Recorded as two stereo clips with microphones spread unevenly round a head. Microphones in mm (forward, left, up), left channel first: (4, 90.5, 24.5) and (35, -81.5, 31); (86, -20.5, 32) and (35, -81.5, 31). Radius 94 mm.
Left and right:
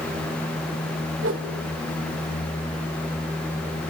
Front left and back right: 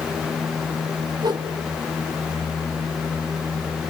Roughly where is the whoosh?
Right.